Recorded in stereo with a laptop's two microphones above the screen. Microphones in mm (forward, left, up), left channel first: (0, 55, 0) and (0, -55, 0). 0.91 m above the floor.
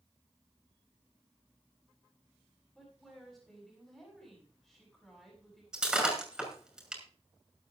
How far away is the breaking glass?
About 6 m.